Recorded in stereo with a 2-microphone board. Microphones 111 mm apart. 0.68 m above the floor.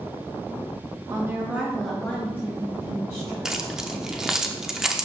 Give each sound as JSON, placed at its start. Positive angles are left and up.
{"t": 1.1, "sound": "a woman speaking", "side_deg": -30, "distance_m": 1.4}
{"t": 3.5, "sound": "keys jangling", "side_deg": -5, "distance_m": 0.8}